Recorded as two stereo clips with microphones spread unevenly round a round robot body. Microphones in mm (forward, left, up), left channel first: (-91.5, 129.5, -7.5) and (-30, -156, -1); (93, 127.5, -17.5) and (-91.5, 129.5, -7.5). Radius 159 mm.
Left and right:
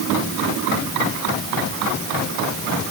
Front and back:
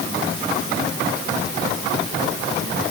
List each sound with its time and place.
Only background noise.